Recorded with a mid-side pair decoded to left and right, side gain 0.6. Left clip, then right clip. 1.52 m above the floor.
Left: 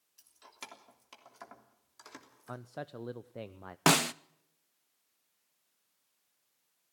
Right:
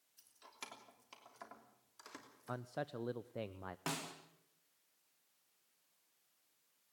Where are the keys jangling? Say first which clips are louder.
Left 4 dB; 20° left, 3 m.